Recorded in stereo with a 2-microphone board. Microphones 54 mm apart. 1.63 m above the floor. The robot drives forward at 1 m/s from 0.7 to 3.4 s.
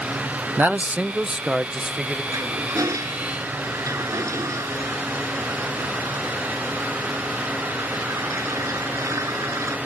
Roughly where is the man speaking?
Right.